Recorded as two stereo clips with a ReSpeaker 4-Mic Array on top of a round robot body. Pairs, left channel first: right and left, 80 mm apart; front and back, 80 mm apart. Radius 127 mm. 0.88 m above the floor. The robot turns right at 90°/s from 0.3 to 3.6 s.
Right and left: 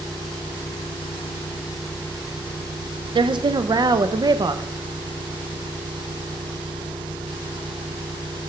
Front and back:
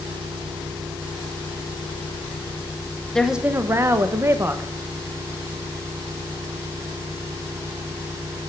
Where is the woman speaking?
80° left, 0.7 m; by 4.6 s 120° left, 0.7 m.